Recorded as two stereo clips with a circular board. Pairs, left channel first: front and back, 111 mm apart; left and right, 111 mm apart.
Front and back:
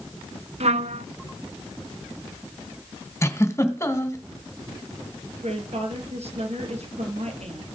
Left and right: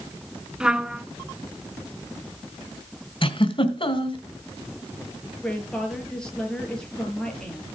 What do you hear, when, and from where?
0.6 s a trumpet: 175° right, 0.7 m
3.2 s a giggle: 65° left, 2 m
5.4 s a woman speaking: 170° left, 5.5 m